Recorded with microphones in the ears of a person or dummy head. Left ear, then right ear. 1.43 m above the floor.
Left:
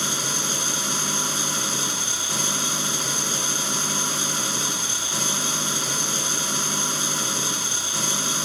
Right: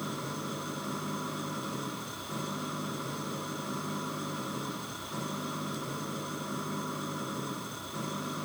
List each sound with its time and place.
0.0 s an engine running: 85° left